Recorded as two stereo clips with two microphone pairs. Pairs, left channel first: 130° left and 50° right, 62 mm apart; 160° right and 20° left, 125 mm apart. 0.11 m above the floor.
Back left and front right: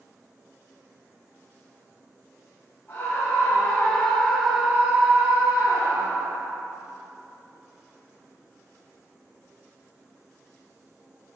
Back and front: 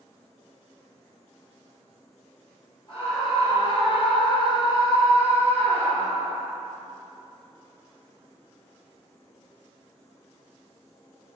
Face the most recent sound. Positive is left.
turn(degrees=-75)